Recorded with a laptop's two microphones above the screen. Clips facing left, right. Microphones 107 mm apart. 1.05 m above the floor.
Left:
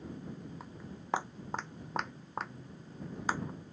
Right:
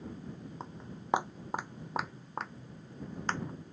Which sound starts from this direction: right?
Footsteps, at 0.6 s.